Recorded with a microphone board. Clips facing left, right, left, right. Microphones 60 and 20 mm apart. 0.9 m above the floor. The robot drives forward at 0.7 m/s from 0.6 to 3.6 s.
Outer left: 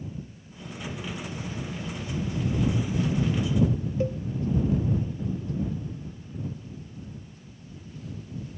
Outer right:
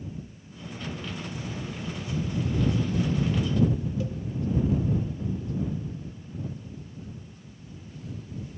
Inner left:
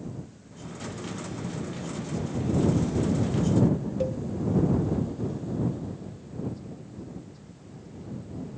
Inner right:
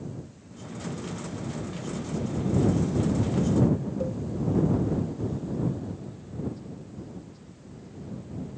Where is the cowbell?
35° left (ahead or behind), 0.6 m.